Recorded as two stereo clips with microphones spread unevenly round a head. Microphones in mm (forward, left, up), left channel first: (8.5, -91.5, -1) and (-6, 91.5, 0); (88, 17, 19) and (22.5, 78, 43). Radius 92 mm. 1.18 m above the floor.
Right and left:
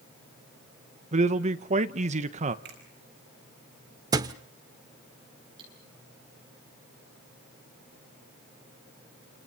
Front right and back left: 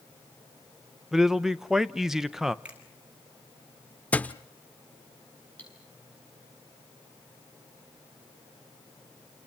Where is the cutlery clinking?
30° left, 9.5 m.